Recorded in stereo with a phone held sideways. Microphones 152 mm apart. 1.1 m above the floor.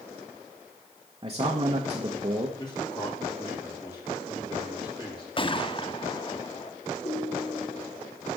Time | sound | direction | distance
1.2 | a man speaking | 30° right (ahead or behind) | 1.3 m
2.6 | a man speaking | 25° left (ahead or behind) | 3 m
5.4 | a gunshot | 35° left (ahead or behind) | 0.6 m
7.0 | a ringtone | 50° left (ahead or behind) | 2 m